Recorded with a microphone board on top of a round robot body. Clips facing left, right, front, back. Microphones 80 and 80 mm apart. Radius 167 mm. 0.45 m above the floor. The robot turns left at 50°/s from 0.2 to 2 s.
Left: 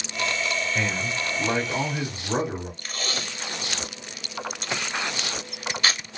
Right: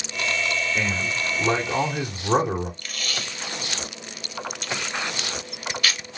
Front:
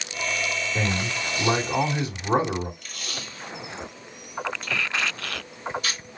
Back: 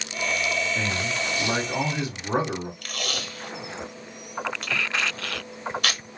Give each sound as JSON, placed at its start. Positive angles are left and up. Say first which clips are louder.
{"t": 0.8, "sound": "a man speaking", "louder": "right 1 dB, even", "azimuth_deg": 5, "distance_m": 2.5}
{"t": 2.8, "sound": "tape being pulled", "louder": "left 1 dB, back 5 dB", "azimuth_deg": 155, "distance_m": 0.9}